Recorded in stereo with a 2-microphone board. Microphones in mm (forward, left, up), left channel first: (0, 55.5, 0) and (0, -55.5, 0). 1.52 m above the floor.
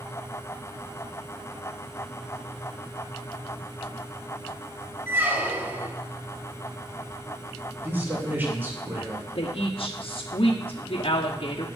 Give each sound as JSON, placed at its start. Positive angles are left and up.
{"t": 5.1, "sound": "a squeak", "side_deg": -20, "distance_m": 1.2}
{"t": 7.8, "sound": "a man speaking", "side_deg": -20, "distance_m": 3.0}
{"t": 9.3, "sound": "a woman speaking", "side_deg": 55, "distance_m": 1.0}